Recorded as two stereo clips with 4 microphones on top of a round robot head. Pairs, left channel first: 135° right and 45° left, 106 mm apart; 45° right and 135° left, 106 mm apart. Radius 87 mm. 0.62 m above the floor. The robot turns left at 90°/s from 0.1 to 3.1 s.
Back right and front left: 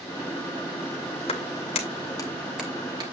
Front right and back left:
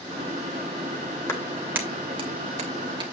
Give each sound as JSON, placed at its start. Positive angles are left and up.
{"t": 1.3, "sound": "a clap", "azimuth_deg": -110, "distance_m": 2.5}